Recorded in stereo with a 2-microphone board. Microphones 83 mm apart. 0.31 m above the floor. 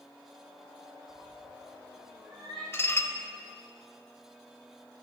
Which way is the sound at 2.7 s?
30° left (ahead or behind).